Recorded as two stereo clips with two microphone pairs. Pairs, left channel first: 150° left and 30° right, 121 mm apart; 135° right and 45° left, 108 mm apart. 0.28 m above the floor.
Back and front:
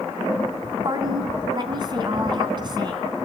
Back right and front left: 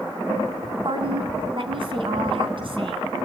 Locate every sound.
0.8 s a woman speaking: 20° left, 3 m